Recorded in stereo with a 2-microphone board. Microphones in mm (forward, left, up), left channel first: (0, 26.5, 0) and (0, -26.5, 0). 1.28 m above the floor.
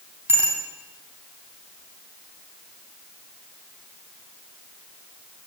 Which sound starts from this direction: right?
A bicycle bell, at 0.3 s.